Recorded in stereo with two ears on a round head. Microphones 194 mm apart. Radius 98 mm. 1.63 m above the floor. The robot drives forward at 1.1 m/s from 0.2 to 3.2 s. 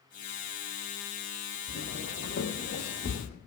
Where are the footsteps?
60° left (ahead or behind), 3.5 m; by 3.3 s 40° left (ahead or behind), 3 m.